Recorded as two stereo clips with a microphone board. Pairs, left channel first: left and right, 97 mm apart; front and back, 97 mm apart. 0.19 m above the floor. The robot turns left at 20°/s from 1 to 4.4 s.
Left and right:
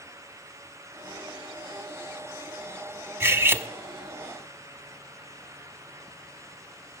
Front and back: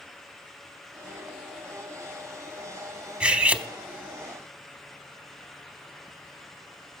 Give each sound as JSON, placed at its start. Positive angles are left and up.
{"t": 3.2, "sound": "cutlery clinking", "azimuth_deg": -115, "distance_m": 0.6}